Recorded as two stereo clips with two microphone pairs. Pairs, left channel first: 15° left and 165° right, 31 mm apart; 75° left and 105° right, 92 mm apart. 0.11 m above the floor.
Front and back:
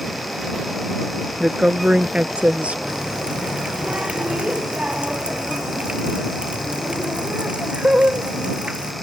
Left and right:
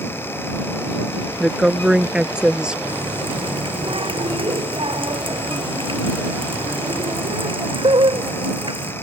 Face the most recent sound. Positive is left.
turn(degrees=-120)